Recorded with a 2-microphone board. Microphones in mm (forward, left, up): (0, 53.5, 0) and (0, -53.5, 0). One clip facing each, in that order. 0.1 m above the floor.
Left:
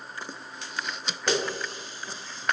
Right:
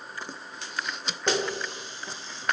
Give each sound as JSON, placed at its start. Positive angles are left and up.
{"t": 1.3, "sound": "a running tap", "side_deg": -25, "distance_m": 3.5}